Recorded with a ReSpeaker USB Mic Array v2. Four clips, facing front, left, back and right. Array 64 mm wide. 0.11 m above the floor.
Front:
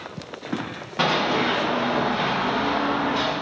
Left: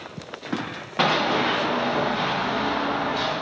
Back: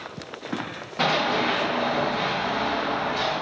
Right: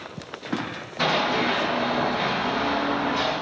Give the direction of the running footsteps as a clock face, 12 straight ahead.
10 o'clock.